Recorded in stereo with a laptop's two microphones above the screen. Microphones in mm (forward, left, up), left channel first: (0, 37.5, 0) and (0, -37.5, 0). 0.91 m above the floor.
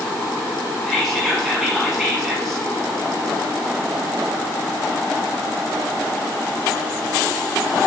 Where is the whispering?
5° left (ahead or behind), 1.4 m.